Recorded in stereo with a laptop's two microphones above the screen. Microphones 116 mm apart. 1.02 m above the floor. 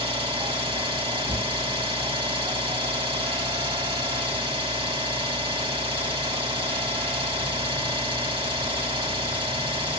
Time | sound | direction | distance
0.0 | an engine running | 50° right (ahead or behind) | 1.5 m